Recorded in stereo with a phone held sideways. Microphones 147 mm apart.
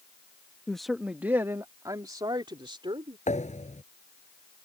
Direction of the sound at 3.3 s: 50° left (ahead or behind).